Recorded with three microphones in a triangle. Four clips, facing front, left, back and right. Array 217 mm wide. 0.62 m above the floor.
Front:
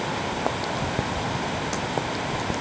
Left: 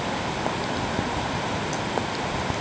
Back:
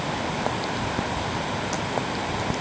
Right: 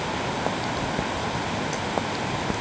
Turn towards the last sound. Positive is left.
No sound to turn to.